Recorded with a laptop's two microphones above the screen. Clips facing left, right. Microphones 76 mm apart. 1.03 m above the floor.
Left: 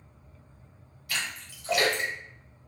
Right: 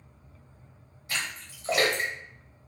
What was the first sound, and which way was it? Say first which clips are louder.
A splash: even; 30° right (ahead or behind).